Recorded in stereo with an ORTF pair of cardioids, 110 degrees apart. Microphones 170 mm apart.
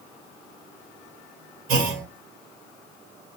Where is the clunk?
60° right, 1.1 m.